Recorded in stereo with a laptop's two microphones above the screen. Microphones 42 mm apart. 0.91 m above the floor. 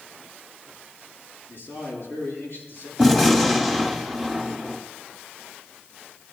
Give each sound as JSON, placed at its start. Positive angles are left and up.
{"t": 1.5, "sound": "a man speaking", "side_deg": 65, "distance_m": 9.0}
{"t": 3.0, "sound": "a gunshot", "side_deg": 10, "distance_m": 1.6}